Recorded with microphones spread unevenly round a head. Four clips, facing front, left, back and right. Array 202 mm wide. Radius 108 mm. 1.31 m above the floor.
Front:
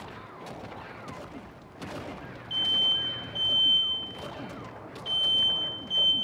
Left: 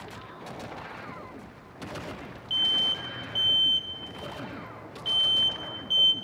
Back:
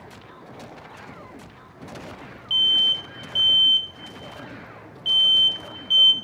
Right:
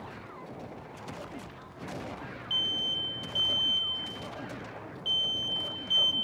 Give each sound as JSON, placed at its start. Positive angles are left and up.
{"t": 2.5, "sound": "an alarm", "azimuth_deg": -175, "distance_m": 2.0}